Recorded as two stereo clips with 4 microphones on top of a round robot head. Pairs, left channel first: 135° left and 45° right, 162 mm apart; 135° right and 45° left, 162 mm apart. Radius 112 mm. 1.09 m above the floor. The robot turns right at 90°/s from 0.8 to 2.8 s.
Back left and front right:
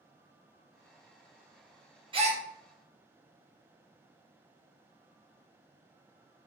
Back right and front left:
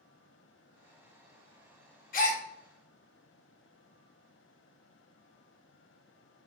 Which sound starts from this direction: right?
A gasp, at 2.1 s.